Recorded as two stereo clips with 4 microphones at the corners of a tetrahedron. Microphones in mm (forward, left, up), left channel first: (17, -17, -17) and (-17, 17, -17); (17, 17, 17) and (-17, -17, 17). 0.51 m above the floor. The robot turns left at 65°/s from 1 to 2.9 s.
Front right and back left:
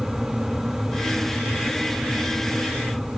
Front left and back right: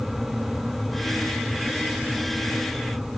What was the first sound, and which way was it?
Only background noise.